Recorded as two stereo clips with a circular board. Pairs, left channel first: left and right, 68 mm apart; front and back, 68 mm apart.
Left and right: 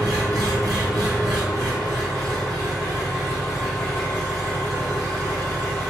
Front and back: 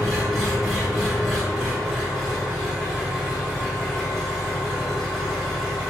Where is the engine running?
90° right, 1.9 m.